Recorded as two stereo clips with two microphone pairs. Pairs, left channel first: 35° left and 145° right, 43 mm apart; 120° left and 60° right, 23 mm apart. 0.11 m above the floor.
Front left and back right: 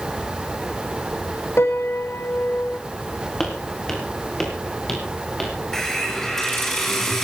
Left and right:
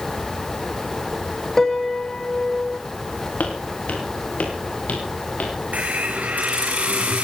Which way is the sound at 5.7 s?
50° right.